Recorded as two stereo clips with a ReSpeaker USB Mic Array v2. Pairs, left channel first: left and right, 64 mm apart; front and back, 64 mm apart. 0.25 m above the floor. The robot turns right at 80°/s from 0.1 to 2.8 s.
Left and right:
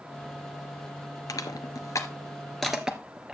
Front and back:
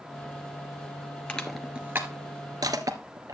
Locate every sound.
1.3 s crushing: 70° left, 1.4 m; by 3.4 s 170° right, 1.4 m